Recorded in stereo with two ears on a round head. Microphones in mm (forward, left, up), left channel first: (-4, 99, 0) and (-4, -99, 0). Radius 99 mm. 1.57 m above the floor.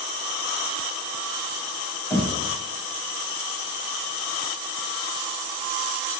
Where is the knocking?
Centre (ahead or behind), 1.0 m.